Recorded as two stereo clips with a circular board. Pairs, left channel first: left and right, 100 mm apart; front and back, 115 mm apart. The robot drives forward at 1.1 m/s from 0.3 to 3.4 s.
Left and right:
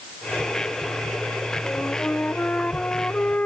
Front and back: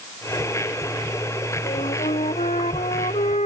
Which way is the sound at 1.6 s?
10° left.